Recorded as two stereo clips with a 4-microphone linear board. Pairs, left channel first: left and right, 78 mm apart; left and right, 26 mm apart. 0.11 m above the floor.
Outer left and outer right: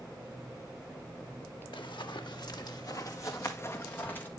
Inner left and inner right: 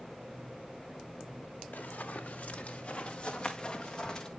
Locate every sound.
1.7 s running footsteps: 70° left (ahead or behind), 1.8 m; by 4.3 s 20° left (ahead or behind), 2.5 m